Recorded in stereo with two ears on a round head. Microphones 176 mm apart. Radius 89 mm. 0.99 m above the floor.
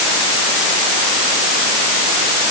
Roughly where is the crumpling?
I don't hear crumpling.